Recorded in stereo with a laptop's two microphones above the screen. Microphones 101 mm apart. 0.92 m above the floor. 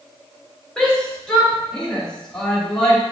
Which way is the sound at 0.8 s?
10° left (ahead or behind).